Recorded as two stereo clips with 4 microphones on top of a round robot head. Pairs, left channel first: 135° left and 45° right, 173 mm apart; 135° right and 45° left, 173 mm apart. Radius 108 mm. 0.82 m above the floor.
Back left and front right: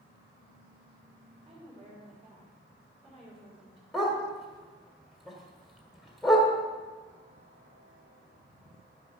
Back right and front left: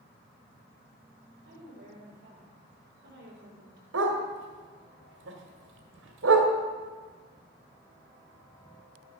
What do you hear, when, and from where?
1.4 s a woman speaking: 15° left, 3.5 m
3.9 s a dog barking: 45° left, 1.6 m